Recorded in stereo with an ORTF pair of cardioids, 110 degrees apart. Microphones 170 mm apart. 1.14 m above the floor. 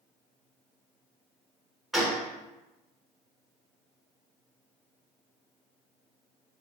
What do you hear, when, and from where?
1.9 s a gunshot: straight ahead, 1.2 m